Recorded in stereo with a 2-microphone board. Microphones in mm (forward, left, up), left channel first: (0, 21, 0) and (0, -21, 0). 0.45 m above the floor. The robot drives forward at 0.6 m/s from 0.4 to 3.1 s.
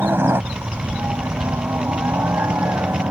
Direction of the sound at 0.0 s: 60° right (ahead or behind).